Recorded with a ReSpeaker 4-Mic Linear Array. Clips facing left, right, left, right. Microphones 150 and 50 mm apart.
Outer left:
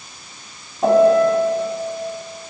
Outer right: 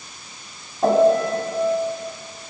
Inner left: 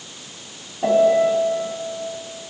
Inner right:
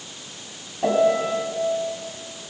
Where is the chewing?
No chewing in this recording.